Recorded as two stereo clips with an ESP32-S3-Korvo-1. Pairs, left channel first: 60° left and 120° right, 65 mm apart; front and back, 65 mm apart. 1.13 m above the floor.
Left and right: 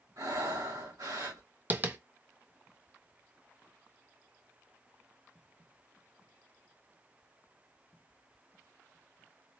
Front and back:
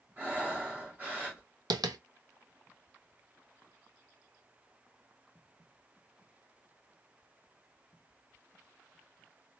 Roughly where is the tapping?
Behind.